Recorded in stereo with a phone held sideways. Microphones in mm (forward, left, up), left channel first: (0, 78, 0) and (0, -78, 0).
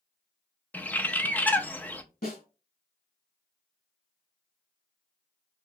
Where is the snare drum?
60° left (ahead or behind), 2.5 m.